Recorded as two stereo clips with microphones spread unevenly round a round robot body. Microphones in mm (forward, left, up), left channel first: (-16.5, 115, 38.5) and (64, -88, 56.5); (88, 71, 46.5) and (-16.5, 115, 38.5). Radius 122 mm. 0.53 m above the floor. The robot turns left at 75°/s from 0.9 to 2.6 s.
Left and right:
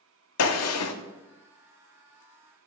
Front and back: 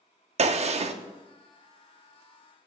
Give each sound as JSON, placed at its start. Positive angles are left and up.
{"t": 0.4, "sound": "a gunshot", "azimuth_deg": 130, "distance_m": 0.7}